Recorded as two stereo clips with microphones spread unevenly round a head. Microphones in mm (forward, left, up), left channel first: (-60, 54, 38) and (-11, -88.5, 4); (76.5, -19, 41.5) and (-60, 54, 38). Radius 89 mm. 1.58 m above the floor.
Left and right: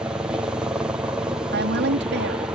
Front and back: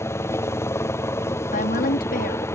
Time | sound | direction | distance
0.0 | a helicopter | 65° right | ?
1.5 | a woman speaking | 70° right | ?